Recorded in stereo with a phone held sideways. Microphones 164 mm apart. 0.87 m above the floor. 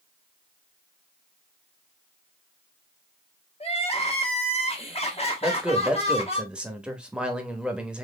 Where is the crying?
40° left (ahead or behind), 1.2 m.